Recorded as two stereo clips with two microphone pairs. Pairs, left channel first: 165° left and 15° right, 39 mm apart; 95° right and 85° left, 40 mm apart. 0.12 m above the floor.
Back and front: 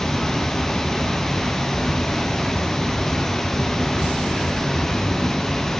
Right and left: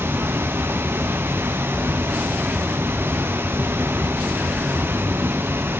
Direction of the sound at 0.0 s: 85° left.